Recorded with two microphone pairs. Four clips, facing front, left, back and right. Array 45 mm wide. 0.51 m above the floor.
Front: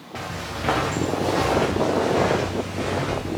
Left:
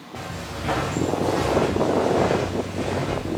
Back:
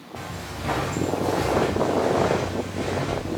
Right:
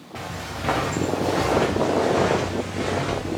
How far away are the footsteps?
About 2.5 m.